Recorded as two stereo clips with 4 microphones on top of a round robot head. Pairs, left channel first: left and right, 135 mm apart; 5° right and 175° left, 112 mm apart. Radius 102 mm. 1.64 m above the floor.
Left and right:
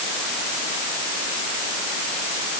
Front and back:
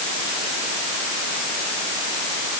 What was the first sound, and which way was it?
Only background noise.